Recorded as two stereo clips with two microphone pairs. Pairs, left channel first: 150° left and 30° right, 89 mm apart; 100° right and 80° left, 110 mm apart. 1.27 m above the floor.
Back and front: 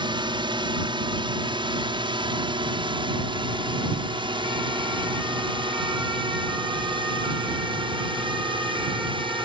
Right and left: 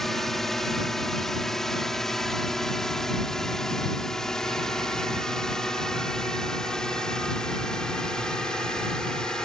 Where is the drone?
15° right; by 9.4 s 20° right.